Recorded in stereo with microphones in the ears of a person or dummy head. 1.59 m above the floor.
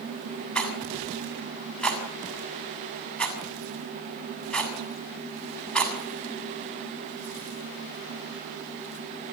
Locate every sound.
0.6 s a rattle: 5° left (ahead or behind), 6.5 m